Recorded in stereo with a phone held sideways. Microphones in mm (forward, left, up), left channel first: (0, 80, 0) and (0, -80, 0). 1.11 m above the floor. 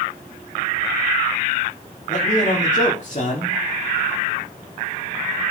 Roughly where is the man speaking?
Left.